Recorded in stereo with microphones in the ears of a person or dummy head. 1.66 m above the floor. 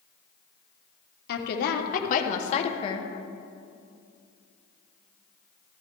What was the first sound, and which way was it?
A woman speaking, 65° left (ahead or behind).